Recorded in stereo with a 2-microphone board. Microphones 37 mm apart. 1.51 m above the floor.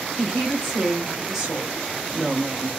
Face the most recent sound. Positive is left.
turn(degrees=-40)  # may be behind; listen again after turning